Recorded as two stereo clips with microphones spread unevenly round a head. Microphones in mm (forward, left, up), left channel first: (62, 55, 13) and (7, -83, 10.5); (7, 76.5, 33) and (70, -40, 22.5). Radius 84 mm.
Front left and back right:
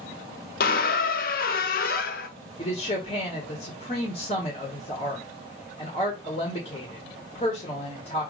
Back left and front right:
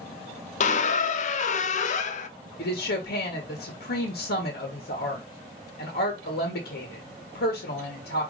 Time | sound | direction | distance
0.6 | a squeak | 100° left | 0.5 m
2.6 | a woman speaking | 130° left | 1.4 m